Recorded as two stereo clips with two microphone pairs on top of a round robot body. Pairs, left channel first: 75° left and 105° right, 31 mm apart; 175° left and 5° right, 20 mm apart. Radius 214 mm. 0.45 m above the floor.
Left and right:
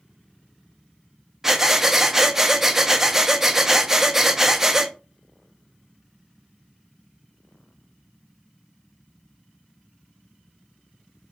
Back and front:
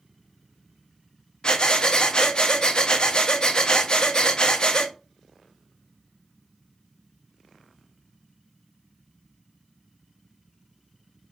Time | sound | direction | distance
1.4 | breathing | 155° right | 0.6 m